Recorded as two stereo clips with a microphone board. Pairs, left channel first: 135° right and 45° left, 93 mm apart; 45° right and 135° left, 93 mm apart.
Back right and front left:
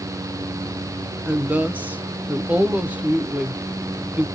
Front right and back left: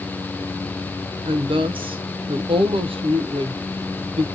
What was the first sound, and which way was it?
A woman speaking, 120° left.